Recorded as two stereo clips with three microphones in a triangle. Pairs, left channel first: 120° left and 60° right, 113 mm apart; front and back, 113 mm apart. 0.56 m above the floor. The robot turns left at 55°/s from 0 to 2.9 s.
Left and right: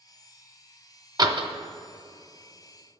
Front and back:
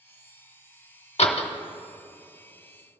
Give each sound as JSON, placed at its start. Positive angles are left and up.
{"t": 1.2, "sound": "a door slam", "azimuth_deg": -10, "distance_m": 1.0}